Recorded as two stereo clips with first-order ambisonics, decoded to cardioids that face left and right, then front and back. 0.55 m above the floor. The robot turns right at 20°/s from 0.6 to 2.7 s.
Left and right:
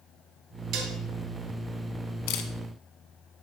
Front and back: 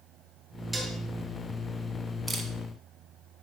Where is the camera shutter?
95° left, 1.0 m; by 2.5 s 100° left, 1.0 m.